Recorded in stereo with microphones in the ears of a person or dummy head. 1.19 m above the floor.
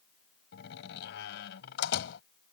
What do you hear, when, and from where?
0.5 s a door slam: 65° left (ahead or behind)